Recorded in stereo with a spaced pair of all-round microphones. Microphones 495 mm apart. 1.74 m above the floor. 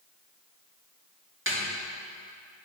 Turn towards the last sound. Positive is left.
turn(degrees=-25)  # may be behind; listen again after turning